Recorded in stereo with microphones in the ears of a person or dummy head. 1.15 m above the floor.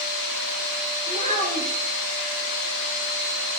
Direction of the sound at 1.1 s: 45° right (ahead or behind).